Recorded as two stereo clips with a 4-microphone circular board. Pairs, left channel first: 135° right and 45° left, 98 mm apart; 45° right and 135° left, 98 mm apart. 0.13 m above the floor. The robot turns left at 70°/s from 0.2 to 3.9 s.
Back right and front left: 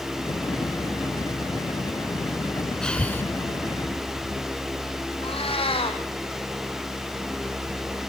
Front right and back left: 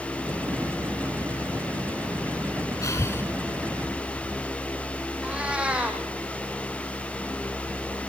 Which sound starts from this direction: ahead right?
Breathing, at 2.8 s.